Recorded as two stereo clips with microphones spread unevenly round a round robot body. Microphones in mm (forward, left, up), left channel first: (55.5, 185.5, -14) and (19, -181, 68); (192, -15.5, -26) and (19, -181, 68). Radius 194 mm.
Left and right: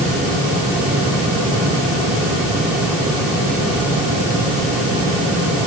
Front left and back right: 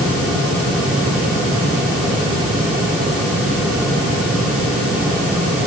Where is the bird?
I don't hear a bird.